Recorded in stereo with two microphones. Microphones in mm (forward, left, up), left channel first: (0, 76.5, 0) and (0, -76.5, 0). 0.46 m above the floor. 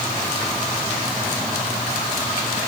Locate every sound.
Only background noise.